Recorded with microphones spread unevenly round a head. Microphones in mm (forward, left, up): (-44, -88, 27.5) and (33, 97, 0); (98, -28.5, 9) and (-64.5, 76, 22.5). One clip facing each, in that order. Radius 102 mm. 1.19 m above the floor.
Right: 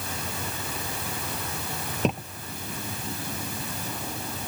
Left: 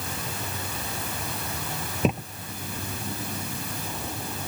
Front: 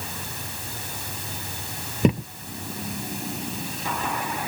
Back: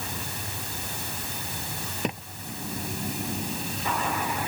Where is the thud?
20° right.